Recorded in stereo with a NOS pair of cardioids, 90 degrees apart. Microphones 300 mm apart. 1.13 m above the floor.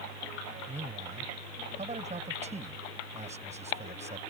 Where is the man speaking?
20° right.